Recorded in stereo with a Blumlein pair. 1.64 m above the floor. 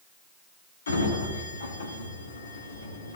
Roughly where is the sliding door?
Left.